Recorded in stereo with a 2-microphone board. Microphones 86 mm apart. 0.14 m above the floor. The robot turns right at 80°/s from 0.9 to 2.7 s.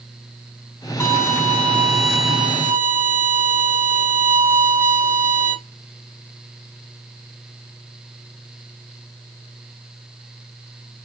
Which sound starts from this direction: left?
A violin, at 1.0 s.